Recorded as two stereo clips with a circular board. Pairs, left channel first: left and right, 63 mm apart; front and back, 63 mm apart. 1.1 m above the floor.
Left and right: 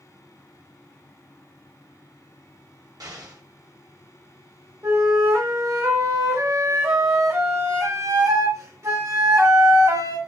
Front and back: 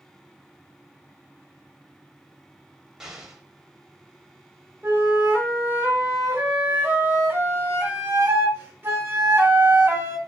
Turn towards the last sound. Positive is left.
turn(degrees=-125)